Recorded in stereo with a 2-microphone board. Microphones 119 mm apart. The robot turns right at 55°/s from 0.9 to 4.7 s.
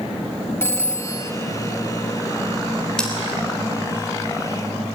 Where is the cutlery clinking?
5° left (ahead or behind), 3.5 m; by 3.1 s 15° left (ahead or behind), 3.5 m.